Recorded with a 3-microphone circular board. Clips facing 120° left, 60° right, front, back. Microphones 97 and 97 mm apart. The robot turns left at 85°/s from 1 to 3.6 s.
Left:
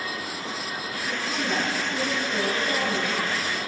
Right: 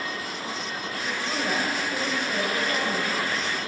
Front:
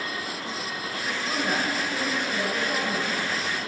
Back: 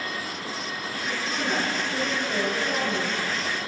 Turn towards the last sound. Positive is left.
turn(degrees=120)